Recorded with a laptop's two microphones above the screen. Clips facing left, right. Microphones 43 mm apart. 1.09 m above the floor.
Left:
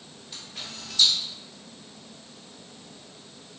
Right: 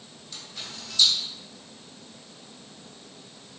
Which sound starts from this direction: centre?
A camera shutter, at 0.3 s.